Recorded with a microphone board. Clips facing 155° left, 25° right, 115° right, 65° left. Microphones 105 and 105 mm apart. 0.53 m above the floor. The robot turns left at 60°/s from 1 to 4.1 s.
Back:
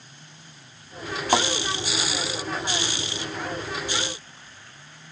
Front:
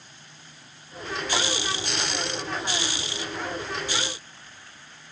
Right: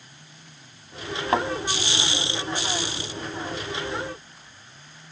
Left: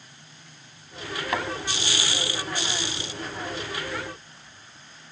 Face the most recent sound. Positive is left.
turn(degrees=25)